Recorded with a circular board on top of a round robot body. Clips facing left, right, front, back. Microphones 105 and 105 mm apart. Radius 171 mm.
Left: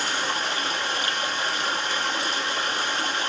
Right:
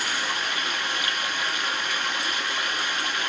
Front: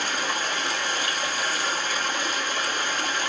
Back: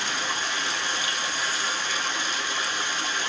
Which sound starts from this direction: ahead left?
Running water, at 0.0 s.